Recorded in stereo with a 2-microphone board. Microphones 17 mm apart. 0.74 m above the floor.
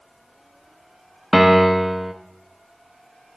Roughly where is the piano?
Centre.